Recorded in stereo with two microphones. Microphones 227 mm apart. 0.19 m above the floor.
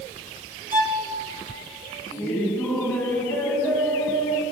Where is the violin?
35° right (ahead or behind), 2 m.